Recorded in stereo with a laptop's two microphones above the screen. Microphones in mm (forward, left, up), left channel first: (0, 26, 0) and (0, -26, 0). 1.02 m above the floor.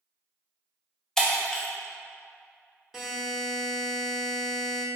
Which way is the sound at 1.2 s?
10° left (ahead or behind).